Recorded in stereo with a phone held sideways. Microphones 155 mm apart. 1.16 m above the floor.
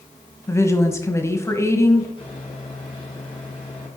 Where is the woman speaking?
20° left (ahead or behind), 1.2 m.